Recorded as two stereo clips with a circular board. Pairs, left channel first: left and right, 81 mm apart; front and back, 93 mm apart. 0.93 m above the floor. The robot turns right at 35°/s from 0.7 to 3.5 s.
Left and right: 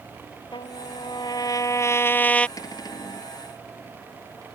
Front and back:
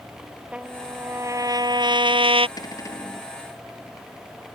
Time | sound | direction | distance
0.5 | a trumpet | 105° left | ?
2.6 | a cupboard door | 45° left | ?